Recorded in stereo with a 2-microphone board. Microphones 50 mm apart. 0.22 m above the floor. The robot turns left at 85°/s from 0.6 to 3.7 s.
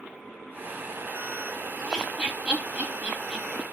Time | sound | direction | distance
1.8 | laughter | 5° right (ahead or behind) | 1.1 m